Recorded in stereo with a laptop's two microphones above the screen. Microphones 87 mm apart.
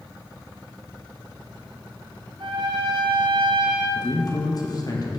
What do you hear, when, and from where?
2.4 s a trumpet: 60° right (ahead or behind), 0.8 m
4.0 s a man speaking: 45° left (ahead or behind), 1.2 m